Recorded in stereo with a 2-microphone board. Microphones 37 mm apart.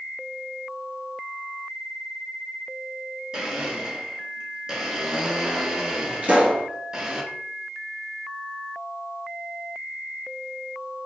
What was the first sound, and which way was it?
A blender, 20° right (ahead or behind).